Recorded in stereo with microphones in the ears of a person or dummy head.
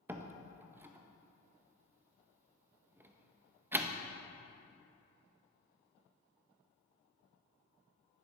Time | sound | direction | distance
0.1 | a door slam | 10° right (ahead or behind) | 0.7 m